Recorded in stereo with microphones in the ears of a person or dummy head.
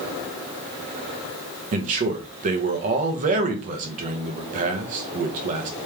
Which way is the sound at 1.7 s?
45° right (ahead or behind).